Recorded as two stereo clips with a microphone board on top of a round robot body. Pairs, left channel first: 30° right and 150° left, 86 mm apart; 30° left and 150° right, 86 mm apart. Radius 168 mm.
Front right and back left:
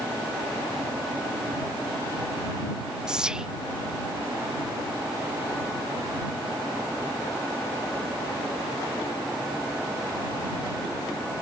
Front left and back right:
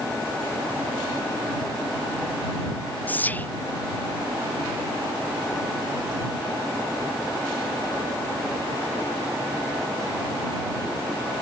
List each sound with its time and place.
3.1 s whispering: 80° left